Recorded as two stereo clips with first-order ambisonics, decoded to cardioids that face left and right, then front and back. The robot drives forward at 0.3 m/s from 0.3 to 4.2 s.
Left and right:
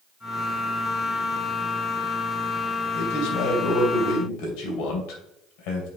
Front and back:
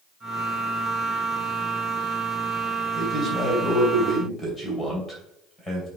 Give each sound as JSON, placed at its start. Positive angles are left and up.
{"t": 2.9, "sound": "a man speaking", "azimuth_deg": 80, "distance_m": 3.0}